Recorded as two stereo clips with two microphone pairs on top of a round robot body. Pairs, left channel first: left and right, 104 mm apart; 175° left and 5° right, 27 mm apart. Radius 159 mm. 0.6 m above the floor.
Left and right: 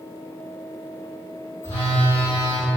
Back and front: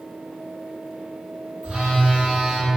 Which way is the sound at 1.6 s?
15° left.